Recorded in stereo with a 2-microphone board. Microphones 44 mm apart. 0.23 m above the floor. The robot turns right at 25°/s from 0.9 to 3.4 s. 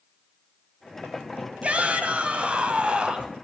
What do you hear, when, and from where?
1.6 s a shout: 90° right, 1.8 m; by 3.3 s 45° right, 1.8 m